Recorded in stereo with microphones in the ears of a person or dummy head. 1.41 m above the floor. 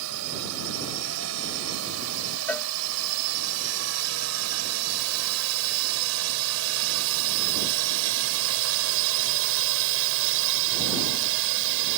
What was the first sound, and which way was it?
A drone, 70° right (ahead or behind).